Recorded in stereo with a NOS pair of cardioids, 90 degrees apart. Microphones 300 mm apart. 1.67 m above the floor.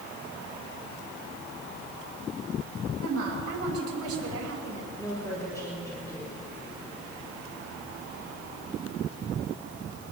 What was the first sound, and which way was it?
A woman speaking, 50° right.